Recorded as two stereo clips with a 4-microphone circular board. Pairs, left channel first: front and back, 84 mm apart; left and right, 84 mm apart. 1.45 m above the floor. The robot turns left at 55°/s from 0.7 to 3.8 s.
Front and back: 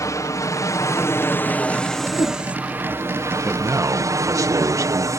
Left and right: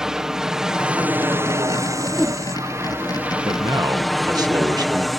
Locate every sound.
0.0 s an aircraft: 10° right; by 5.2 s straight behind
2.1 s a whoosh: 5° left; by 2.4 s 15° right
3.5 s a man speaking: 110° right; by 5.1 s 130° right